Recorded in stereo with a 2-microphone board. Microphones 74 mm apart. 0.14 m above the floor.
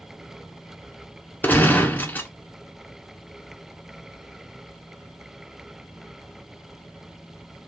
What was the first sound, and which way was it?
A gunshot, 25° left (ahead or behind).